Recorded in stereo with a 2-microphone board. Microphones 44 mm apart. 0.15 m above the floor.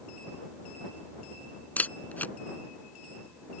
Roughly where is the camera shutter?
Left.